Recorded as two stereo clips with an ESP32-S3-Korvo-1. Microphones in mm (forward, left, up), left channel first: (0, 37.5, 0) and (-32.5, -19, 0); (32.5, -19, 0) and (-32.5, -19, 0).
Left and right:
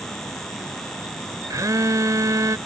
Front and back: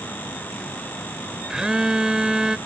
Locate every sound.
1.5 s a phone buzzing: 100° right